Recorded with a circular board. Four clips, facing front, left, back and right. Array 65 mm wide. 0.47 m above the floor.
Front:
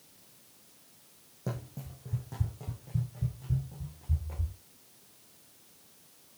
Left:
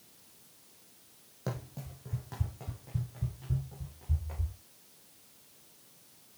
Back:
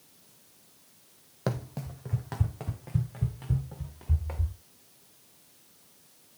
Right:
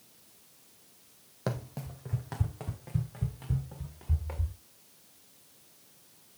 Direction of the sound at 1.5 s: 155° right.